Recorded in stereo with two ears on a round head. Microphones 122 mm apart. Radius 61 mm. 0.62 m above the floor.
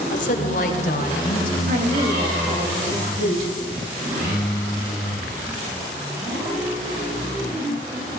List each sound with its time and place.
0.1 s a woman speaking: 60° left (ahead or behind), 2.5 m; by 1.6 s 70° left (ahead or behind), 4.5 m
1.7 s a woman speaking: 65° right (ahead or behind), 3.5 m